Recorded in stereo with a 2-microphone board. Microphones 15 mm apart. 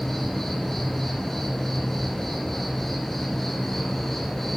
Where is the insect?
20° left (ahead or behind), 2.5 m.